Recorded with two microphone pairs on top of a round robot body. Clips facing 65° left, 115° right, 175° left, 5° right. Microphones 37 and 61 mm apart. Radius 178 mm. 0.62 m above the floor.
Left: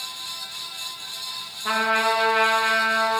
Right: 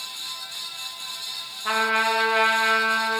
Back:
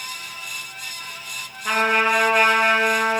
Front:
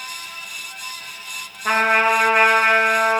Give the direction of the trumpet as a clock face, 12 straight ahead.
1 o'clock.